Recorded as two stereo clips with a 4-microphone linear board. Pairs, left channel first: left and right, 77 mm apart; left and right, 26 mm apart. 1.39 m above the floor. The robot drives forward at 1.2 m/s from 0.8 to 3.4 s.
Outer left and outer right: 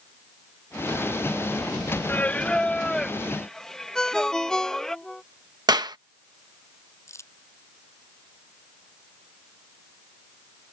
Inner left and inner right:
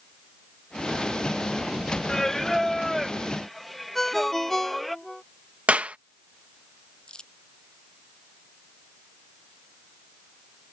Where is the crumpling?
40° left (ahead or behind).